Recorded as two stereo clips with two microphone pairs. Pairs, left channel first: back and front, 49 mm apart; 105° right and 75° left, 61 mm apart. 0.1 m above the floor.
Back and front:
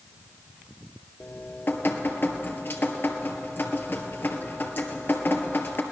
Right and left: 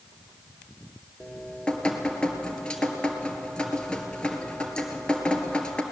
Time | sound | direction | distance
1.2 | dripping | 175° right | 1.8 m